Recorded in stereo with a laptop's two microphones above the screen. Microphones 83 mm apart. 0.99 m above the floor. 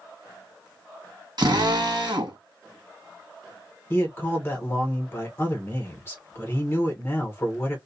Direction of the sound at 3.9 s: 30° left (ahead or behind).